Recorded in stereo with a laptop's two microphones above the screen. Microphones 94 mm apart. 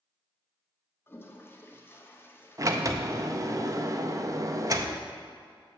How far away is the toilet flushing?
About 0.7 m.